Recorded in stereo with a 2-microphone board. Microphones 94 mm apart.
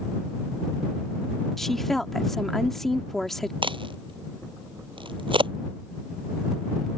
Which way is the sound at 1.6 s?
5° left (ahead or behind).